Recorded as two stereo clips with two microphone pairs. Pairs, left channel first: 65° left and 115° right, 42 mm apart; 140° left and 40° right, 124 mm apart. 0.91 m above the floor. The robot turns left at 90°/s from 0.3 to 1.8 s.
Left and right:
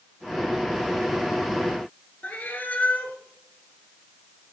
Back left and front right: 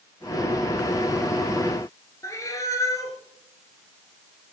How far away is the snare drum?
No snare drum in this recording.